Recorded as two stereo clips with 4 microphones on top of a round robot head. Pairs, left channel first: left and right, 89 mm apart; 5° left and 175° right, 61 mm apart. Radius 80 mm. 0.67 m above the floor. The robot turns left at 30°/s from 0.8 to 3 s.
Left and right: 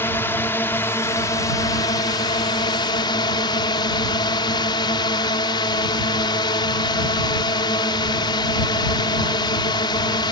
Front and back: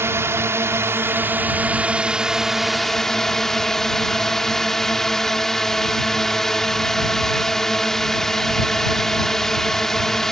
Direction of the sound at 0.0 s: 150° left.